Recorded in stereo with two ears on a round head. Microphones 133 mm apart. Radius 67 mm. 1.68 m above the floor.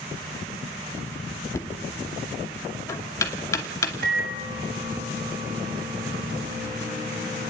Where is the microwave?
65° right (ahead or behind), 8 m.